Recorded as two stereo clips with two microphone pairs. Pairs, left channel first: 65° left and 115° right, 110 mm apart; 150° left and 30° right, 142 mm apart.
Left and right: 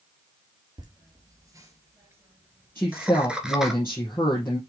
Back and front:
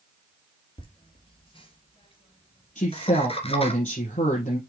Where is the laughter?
160° right, 2.5 m; by 3.8 s 160° left, 1.8 m.